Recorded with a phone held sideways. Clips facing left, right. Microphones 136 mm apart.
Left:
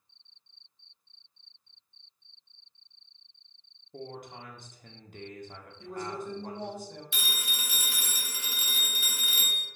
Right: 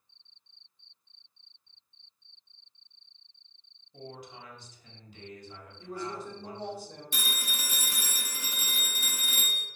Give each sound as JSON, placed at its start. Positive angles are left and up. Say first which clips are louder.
{"t": 3.9, "sound": "a man speaking", "louder": "left 3 dB", "side_deg": 55, "distance_m": 0.5}
{"t": 5.8, "sound": "a woman speaking", "louder": "left 1 dB", "side_deg": -35, "distance_m": 1.0}
{"t": 7.1, "sound": "a phone ringing", "louder": "right 1 dB", "side_deg": -45, "distance_m": 0.5}